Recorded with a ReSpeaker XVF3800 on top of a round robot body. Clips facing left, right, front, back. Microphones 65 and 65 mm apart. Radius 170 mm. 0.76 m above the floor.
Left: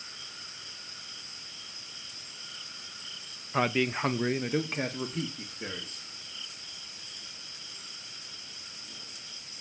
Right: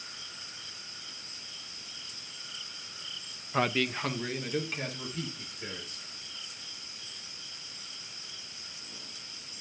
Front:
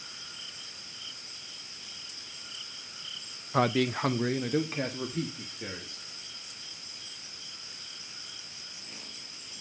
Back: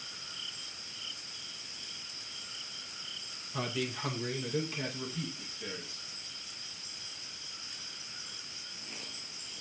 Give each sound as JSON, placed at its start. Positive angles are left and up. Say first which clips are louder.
{"t": 3.5, "sound": "a man speaking", "louder": "left 1 dB, front 10 dB", "azimuth_deg": 0, "distance_m": 0.7}